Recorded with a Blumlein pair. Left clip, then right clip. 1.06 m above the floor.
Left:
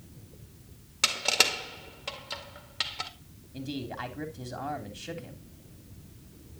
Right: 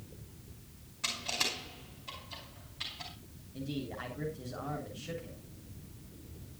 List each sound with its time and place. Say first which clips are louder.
1.0 s crushing: left 9 dB; 50° left, 1.9 m
3.5 s a man speaking: left 4 dB; 70° left, 3 m